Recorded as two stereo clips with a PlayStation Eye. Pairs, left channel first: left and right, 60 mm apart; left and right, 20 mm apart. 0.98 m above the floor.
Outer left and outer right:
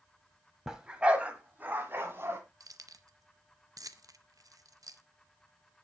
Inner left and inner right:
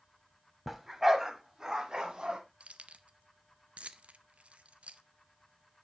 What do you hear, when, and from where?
0.7 s a dog barking: 10° right (ahead or behind), 1.3 m; by 2.4 s 40° right (ahead or behind), 1.8 m
2.6 s keys jangling: 75° right (ahead or behind), 0.6 m